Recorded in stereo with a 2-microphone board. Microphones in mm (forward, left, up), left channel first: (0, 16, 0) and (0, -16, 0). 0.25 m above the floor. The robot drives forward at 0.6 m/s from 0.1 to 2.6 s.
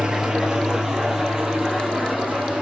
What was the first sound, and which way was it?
An engine running, 20° right (ahead or behind).